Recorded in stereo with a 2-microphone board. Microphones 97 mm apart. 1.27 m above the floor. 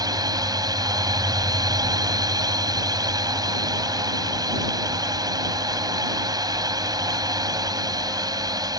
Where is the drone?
40° right (ahead or behind).